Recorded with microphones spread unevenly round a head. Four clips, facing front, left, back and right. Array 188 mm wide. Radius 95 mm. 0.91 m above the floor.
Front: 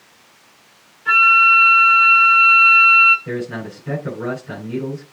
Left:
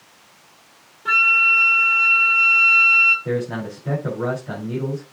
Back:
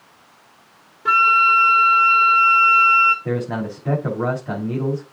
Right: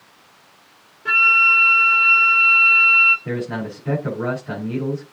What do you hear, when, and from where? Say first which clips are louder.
1.1 s a flute: right 2 dB, even; 170° left, 4.5 m
3.2 s a man speaking: left 1 dB, back 2 dB; 165° left, 5.5 m